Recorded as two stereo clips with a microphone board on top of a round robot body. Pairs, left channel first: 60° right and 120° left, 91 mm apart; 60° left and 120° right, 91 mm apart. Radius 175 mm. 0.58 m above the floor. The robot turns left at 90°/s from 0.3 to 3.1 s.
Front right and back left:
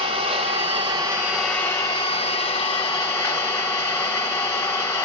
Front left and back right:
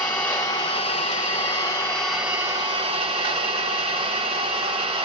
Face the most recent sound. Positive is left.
turn(degrees=-120)